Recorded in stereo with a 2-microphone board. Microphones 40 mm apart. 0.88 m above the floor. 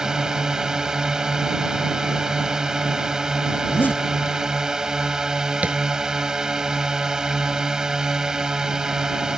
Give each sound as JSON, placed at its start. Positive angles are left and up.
{"t": 0.0, "sound": "a drone", "side_deg": -15}
{"t": 3.6, "sound": "a zipper", "side_deg": 55}
{"t": 5.6, "sound": "tapping", "side_deg": -40}